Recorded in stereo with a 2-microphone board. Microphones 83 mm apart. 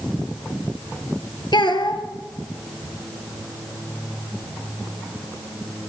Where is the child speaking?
75° left (ahead or behind), 2.5 m.